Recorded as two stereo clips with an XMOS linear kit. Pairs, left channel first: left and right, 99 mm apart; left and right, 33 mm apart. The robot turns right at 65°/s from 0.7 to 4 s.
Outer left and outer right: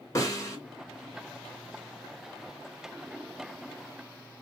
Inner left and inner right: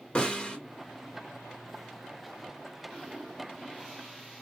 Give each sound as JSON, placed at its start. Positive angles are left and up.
{"t": 0.1, "sound": "a snare drum", "side_deg": 35, "distance_m": 0.8}